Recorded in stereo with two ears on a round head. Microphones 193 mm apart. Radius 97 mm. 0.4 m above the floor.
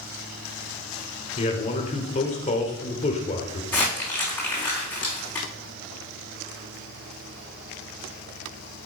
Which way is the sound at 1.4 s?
35° left (ahead or behind).